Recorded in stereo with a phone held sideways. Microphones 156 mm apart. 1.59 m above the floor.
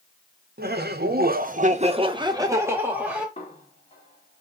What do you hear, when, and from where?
0.6 s laughter: 75° right (ahead or behind), 0.7 m; by 3.3 s 5° right (ahead or behind), 1.1 m
3.4 s a snare drum: 40° left (ahead or behind), 1.5 m